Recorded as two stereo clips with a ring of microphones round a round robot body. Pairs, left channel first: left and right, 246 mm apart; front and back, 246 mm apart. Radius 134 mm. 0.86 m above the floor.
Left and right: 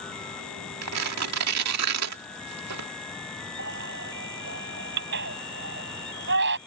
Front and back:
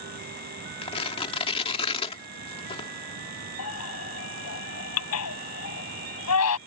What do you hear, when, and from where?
0.8 s tearing paper: 70° right
3.6 s a baby crying: 35° right